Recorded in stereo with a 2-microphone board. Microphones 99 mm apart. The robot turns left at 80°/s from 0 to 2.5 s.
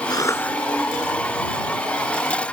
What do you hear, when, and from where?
0.1 s a cough: 50° left; by 0.6 s 10° left